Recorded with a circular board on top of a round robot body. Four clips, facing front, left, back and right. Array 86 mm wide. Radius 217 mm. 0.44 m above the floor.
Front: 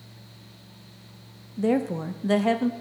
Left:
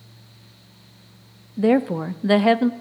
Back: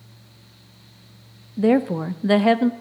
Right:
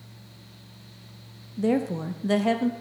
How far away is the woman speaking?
About 0.7 m.